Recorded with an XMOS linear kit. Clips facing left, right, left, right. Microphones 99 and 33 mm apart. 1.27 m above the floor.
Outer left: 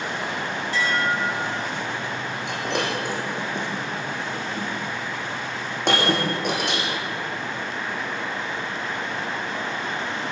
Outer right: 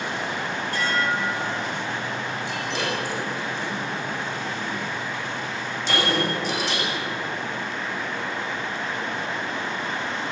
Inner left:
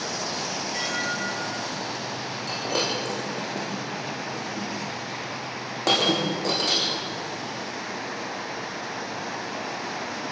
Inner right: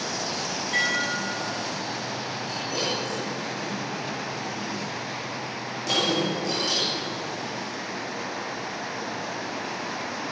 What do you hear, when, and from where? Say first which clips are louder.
0.7 s dishes clattering: outer left 1 dB, inner right 5 dB; 55° right (ahead or behind), 7 m
2.5 s breaking glass: outer left 4 dB, inner left 3 dB; 60° left (ahead or behind), 7.5 m